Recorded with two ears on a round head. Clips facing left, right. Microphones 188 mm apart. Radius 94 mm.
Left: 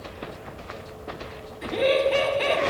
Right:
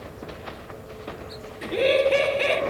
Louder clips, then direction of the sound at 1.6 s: Right 1 dB; 40° right (ahead or behind).